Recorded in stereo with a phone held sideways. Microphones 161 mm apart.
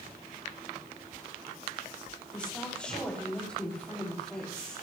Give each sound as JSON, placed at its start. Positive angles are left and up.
{"t": 2.3, "sound": "a woman speaking", "side_deg": 5, "distance_m": 3.0}